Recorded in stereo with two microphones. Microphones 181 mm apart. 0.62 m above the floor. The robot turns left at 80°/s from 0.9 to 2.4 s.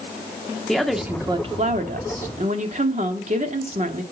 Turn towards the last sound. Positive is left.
turn(degrees=-120)